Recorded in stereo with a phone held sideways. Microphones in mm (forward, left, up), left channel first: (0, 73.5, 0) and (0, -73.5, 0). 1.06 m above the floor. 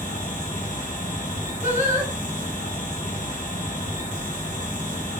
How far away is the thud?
I don't hear a thud.